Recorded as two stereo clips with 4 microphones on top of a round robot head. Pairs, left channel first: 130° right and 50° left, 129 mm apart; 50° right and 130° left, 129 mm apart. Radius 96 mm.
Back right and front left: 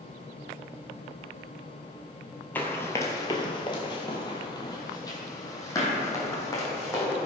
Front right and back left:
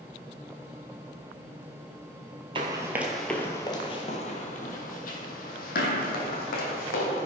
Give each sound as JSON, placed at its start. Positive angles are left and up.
{"t": 2.5, "sound": "running footsteps", "azimuth_deg": 160, "distance_m": 0.7}